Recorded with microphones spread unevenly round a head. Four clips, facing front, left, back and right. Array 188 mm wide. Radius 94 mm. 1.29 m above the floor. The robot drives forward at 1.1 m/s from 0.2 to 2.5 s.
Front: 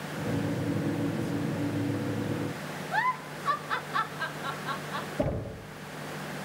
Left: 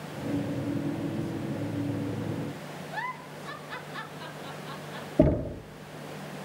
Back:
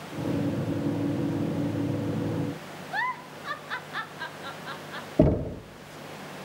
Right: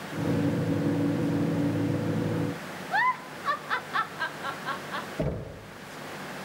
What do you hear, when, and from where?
2.9 s a giggle: 75° right, 1.6 m
5.2 s knocking: 160° left, 1.0 m